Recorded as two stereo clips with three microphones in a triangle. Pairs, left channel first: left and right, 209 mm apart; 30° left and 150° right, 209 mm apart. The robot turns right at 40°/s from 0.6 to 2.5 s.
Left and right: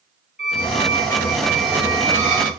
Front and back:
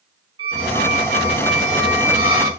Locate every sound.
0.4 s a squeak: 145° left, 5.5 m; by 2.5 s 140° right, 5.5 m